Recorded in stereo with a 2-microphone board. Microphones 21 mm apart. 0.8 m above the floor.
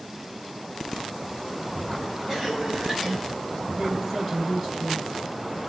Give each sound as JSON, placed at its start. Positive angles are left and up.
{"t": 2.3, "sound": "a cough", "side_deg": -20, "distance_m": 6.0}
{"t": 3.7, "sound": "a woman speaking", "side_deg": -20, "distance_m": 8.5}